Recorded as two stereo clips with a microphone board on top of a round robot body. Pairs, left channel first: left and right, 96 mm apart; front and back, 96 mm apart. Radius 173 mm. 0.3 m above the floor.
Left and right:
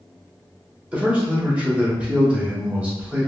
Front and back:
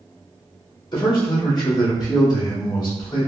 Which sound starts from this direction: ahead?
A man speaking, at 0.9 s.